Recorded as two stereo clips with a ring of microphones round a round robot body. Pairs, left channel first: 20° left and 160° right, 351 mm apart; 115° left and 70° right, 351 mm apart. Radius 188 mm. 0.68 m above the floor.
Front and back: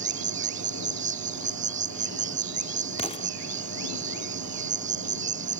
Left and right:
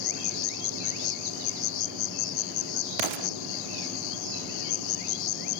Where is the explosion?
55° right.